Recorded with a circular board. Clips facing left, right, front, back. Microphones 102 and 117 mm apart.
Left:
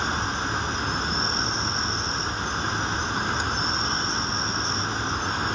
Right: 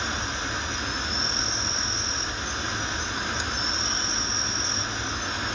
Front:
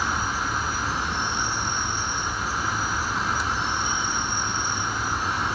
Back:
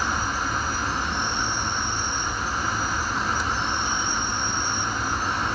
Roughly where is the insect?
Left.